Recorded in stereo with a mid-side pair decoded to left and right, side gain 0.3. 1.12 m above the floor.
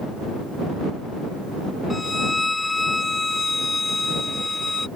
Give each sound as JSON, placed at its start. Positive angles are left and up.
{"t": 1.9, "sound": "a violin", "azimuth_deg": 25}